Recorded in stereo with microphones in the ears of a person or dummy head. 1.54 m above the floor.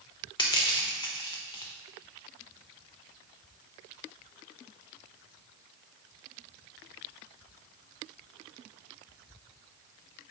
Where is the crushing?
25° left (ahead or behind), 0.5 m.